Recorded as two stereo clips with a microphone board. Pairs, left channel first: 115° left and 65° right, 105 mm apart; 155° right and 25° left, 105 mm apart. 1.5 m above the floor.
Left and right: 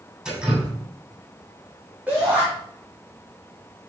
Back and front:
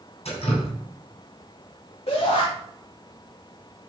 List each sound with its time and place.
0.2 s dripping: 150° right, 7.5 m
2.1 s a shout: 140° right, 3.5 m